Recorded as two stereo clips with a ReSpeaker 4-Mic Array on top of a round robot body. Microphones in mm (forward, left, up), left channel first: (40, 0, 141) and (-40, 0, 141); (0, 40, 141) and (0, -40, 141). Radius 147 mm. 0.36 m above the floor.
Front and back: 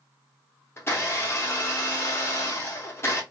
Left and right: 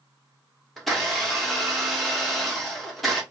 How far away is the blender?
About 1.6 m.